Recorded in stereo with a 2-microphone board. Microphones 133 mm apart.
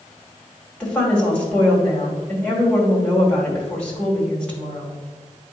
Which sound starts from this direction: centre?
A woman speaking, at 0.8 s.